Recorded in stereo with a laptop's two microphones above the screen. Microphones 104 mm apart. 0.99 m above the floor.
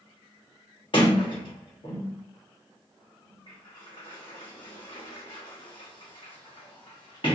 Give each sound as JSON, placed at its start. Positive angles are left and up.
{"t": 0.9, "sound": "a sliding door", "side_deg": 50, "distance_m": 1.2}